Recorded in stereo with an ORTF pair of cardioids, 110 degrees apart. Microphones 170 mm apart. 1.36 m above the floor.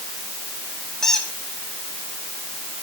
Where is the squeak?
5° left, 1.9 m.